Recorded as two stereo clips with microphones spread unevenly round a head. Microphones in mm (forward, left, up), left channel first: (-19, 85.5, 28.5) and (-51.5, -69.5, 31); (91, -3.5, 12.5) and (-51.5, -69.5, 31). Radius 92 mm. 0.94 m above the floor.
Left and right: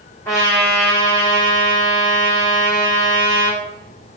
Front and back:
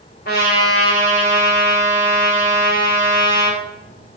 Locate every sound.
0.2 s a trumpet: straight ahead, 1.6 m